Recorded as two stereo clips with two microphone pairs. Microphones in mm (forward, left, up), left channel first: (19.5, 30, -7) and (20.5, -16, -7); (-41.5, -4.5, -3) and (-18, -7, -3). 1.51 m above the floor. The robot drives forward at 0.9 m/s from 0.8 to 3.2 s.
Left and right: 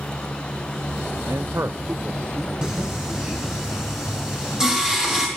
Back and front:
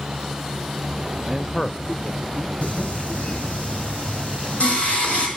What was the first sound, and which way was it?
A man speaking, 75° right.